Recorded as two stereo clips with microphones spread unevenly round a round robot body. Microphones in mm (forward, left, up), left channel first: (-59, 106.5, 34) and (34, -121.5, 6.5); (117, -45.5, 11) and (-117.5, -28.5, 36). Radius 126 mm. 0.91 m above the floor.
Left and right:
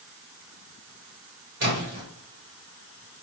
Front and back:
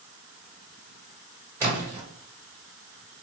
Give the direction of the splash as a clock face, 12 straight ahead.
3 o'clock.